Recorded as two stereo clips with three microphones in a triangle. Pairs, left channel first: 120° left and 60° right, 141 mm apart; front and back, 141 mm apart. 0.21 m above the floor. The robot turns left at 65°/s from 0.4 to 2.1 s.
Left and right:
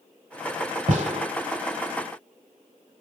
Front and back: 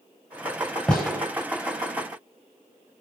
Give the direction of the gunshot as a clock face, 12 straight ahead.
3 o'clock.